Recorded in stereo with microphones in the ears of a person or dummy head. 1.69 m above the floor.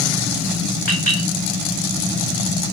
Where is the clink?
40° left (ahead or behind), 4.5 m.